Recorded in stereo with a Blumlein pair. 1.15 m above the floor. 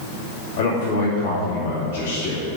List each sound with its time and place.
0.6 s a man speaking: 60° left, 3 m